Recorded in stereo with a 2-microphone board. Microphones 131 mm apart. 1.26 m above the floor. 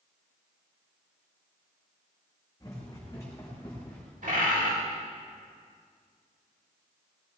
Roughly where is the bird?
Right.